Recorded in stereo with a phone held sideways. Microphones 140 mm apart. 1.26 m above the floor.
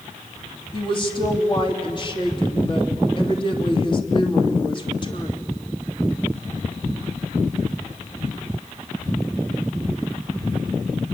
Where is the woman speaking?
35° left (ahead or behind), 3 m.